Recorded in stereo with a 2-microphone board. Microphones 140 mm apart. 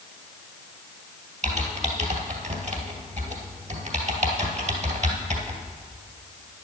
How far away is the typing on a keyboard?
About 2 m.